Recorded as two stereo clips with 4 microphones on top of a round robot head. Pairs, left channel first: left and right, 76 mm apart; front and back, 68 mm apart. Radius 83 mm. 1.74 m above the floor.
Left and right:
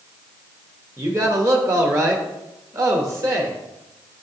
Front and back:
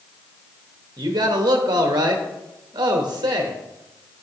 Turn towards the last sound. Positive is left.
turn(degrees=-145)